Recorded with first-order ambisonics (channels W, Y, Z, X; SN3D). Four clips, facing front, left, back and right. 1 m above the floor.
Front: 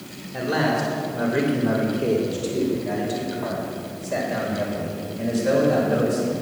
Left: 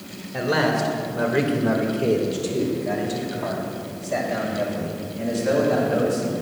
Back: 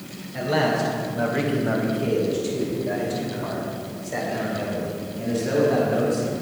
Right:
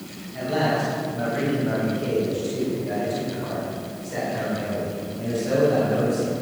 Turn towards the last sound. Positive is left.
turn(degrees=30)